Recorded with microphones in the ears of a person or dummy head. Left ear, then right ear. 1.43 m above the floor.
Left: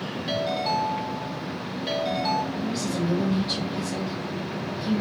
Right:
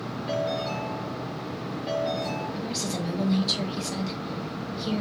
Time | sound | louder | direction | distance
0.3 | a ringtone | left 3 dB | 20° left (ahead or behind) | 1.9 m
2.5 | a woman speaking | left 2 dB | 40° right (ahead or behind) | 2 m